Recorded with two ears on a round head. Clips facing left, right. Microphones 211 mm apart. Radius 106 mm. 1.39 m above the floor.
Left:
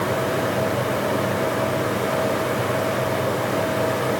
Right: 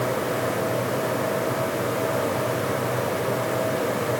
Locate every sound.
Only background noise.